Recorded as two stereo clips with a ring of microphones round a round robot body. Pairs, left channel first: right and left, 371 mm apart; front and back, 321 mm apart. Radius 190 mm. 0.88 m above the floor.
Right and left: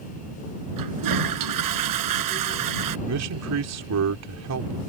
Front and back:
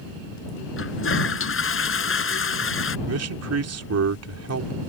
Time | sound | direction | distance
0.8 | a toilet flushing | 50° left | ?
3.1 | a man speaking | 140° left | ?